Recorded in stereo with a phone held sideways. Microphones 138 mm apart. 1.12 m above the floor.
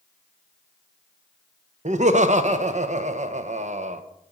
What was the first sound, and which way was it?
Laughter, 60° right (ahead or behind).